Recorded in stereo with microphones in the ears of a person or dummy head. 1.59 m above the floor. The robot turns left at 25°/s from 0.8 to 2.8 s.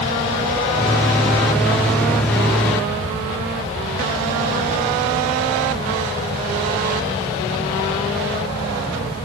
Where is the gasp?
I don't hear a gasp.